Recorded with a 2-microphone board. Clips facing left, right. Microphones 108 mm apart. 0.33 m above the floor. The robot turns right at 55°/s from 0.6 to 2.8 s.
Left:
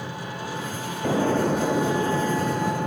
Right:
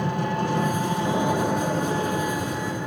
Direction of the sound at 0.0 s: 50° right.